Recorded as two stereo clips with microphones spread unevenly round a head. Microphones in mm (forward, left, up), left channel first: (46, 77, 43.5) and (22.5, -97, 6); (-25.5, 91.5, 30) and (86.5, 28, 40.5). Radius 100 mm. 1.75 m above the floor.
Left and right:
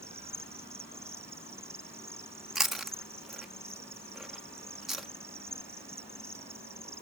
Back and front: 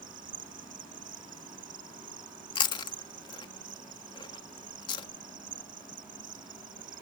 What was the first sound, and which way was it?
An insect, 20° right.